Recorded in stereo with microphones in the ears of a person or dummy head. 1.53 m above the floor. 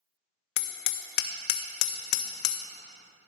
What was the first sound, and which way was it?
Hammering, 65° left (ahead or behind).